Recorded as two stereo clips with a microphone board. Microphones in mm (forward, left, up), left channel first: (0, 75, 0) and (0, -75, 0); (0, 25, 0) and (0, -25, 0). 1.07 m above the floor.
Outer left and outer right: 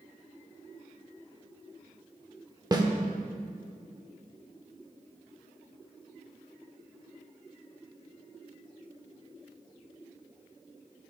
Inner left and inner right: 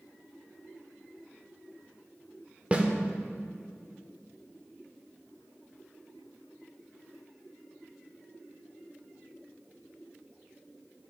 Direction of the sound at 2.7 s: 25° right (ahead or behind).